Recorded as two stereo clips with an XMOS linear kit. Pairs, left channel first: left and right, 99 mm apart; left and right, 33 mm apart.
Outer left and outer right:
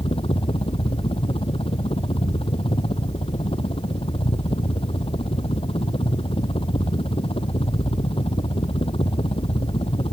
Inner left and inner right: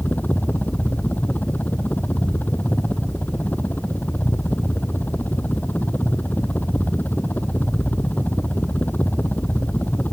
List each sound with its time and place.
0.0 s a helicopter: 70° left (ahead or behind)